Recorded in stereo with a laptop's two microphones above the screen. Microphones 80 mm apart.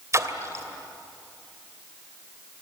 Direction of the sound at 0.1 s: 35° right (ahead or behind).